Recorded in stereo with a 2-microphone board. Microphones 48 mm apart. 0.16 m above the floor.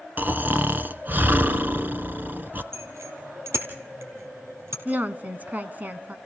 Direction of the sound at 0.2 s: 40° right (ahead or behind).